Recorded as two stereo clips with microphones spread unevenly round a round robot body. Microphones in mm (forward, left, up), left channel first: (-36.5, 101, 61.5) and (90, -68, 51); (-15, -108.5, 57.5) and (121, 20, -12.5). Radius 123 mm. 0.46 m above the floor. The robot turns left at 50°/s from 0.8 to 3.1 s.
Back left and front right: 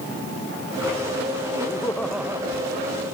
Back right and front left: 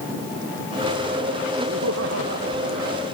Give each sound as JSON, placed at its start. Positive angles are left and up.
{"t": 1.7, "sound": "laughter", "azimuth_deg": 60}